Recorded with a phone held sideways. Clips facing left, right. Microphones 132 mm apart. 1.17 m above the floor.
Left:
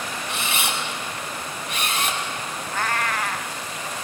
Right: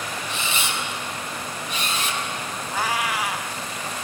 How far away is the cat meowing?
About 0.7 m.